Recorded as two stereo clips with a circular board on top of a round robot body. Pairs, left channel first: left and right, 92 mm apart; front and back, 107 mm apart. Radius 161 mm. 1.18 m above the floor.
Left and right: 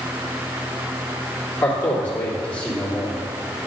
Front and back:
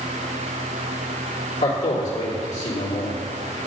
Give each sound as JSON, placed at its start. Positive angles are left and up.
{"t": 1.6, "sound": "a man speaking", "azimuth_deg": 15, "distance_m": 3.0}